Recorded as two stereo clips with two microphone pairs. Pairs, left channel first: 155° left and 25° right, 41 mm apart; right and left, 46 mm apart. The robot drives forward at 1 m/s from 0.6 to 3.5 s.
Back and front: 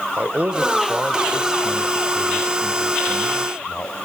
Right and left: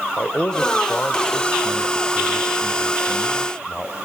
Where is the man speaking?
45° right, 1.7 m; by 4.0 s 160° right, 2.5 m.